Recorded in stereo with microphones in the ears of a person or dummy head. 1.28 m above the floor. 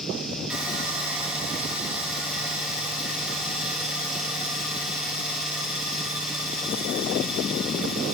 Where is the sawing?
15° right (ahead or behind), 1.1 m.